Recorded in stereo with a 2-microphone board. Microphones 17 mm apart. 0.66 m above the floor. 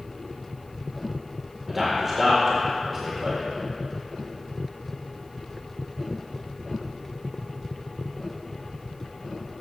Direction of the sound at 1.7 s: 5° right (ahead or behind).